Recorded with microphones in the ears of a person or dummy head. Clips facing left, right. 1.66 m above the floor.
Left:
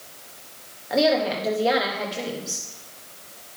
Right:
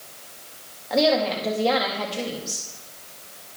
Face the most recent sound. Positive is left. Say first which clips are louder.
# even
turn(degrees=10)  # may be behind; listen again after turning